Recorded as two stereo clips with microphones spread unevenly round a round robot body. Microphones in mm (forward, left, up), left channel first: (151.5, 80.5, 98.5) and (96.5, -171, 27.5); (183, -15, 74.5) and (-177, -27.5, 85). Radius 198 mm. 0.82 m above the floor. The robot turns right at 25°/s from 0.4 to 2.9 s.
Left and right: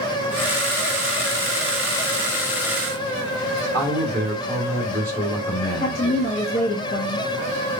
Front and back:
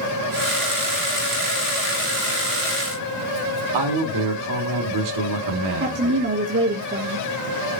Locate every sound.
3.7 s a man speaking: 170° left, 1.5 m
5.8 s a woman speaking: 140° left, 0.9 m